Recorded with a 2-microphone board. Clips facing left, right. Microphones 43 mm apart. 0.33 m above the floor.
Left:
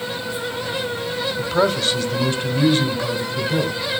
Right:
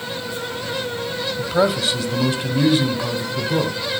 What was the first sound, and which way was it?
A man speaking, centre (ahead or behind).